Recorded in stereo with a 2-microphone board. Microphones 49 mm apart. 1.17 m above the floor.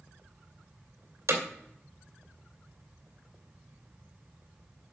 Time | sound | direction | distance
1.3 | hammering | 75° right (ahead or behind) | 2.5 m